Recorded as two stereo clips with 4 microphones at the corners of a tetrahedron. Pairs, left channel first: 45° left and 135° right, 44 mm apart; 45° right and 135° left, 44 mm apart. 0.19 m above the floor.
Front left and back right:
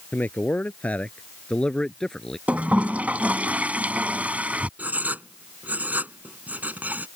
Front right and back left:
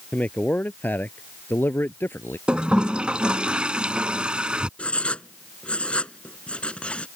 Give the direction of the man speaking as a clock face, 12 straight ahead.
12 o'clock.